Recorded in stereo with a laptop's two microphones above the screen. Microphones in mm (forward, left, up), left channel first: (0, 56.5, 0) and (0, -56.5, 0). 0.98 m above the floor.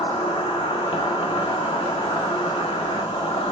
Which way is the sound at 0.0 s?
55° left (ahead or behind).